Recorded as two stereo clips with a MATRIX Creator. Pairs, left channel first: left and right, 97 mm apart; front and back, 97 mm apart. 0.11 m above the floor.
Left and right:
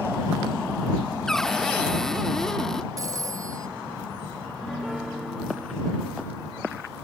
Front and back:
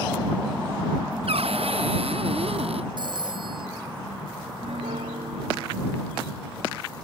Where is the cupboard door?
175° left.